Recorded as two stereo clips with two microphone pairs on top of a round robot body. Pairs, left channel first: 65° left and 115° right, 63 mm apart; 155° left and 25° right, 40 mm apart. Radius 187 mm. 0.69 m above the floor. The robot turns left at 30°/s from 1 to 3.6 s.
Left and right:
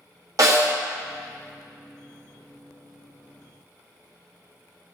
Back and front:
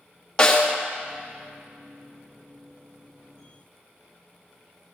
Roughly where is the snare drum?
Behind right.